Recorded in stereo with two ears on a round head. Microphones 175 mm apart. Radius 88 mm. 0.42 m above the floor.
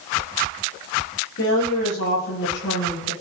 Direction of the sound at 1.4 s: 65° left (ahead or behind).